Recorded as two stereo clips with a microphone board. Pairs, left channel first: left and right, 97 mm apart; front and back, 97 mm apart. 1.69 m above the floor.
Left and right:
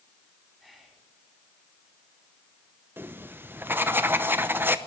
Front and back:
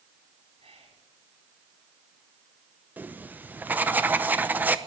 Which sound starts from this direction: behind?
Whispering, at 0.6 s.